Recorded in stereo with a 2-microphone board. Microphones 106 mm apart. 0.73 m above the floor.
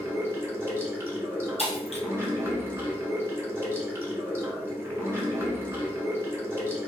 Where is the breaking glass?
65° left (ahead or behind), 1.5 m.